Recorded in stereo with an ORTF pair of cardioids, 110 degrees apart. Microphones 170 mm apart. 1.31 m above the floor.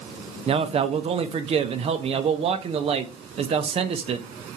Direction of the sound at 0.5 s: 35° right.